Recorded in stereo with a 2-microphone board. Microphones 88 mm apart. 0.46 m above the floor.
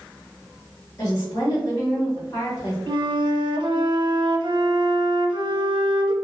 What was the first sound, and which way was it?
A woman speaking, 35° left (ahead or behind).